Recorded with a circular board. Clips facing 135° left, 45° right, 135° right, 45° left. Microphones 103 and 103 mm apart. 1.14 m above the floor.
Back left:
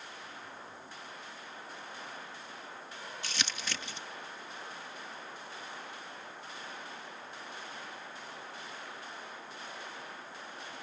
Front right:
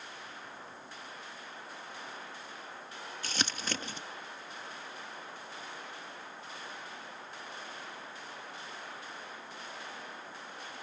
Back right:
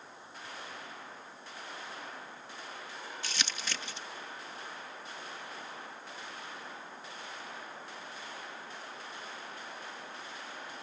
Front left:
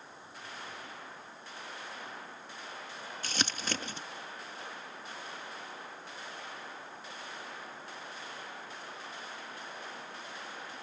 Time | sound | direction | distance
3.2 | crumpling | straight ahead | ?